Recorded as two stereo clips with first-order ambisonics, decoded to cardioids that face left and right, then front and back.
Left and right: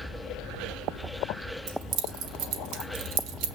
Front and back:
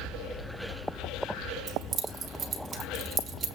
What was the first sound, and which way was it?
Keys jangling, 115° right.